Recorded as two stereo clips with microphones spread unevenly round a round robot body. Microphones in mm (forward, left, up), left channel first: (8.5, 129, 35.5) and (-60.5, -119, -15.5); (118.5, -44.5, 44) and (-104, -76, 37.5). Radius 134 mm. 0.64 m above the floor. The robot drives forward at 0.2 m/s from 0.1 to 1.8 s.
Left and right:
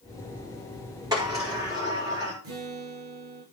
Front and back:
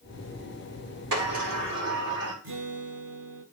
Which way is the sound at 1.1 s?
Straight behind.